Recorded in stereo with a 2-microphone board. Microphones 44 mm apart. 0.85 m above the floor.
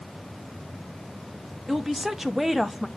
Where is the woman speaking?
10° right (ahead or behind), 1.3 m; by 2.9 s centre (ahead or behind), 0.9 m.